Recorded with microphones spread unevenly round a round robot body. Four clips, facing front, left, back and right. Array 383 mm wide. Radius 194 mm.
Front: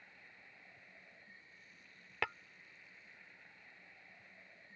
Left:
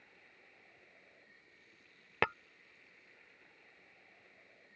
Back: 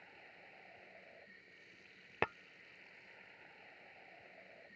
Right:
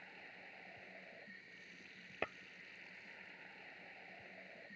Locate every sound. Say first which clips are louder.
0.0 s running water: right 7 dB, back 3 dB; 100° right
2.2 s tapping: left 10 dB, back 2 dB; 95° left